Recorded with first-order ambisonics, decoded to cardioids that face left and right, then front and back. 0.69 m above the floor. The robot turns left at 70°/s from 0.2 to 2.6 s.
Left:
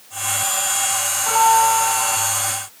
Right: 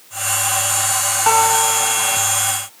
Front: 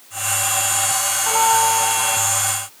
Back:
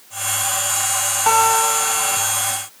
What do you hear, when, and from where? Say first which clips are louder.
1.3 s a guitar: left 1 dB, back 1 dB; 130° right, 1.7 m; by 2.2 s 165° left, 1.7 m